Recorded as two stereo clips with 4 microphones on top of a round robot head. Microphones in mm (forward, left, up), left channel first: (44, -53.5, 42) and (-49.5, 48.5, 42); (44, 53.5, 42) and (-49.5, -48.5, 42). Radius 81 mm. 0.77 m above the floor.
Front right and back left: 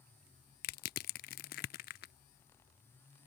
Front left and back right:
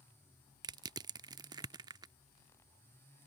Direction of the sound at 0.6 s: 70° right.